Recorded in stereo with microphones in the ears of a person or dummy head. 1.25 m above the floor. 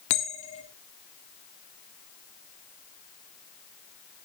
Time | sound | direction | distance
0.1 | a bell | 35° left (ahead or behind) | 1.9 m